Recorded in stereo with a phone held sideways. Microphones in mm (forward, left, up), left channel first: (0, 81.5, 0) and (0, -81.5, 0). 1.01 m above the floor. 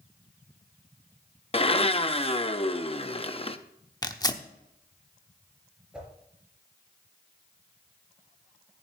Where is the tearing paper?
25° left (ahead or behind), 0.9 m.